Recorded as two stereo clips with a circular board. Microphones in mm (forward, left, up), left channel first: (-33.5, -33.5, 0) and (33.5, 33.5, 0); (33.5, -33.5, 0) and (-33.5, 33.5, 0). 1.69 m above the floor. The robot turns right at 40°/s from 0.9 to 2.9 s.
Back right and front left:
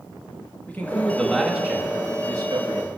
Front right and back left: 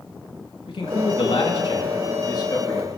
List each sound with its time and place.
0.7 s a man speaking: 65° right, 3.5 m; by 2.9 s 15° left, 3.5 m